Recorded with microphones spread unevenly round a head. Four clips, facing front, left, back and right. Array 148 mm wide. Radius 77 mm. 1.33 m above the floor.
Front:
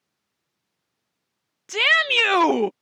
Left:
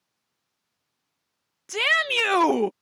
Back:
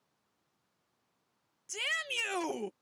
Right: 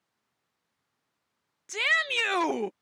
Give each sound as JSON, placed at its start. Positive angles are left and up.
{"t": 1.7, "sound": "a shout", "azimuth_deg": 30}